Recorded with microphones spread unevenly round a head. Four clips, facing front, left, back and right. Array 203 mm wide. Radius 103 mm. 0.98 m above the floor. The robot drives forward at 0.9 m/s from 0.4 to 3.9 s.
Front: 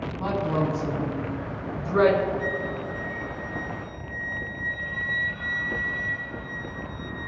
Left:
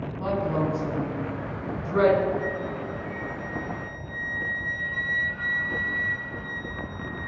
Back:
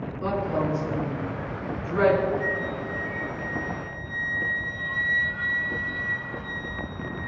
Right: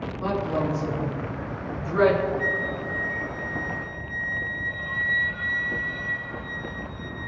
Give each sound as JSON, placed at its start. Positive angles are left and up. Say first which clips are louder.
{"t": 0.2, "sound": "a woman speaking", "louder": "even, even", "azimuth_deg": 15, "distance_m": 6.5}
{"t": 2.4, "sound": "a flute", "louder": "right 2 dB, even", "azimuth_deg": -100, "distance_m": 1.8}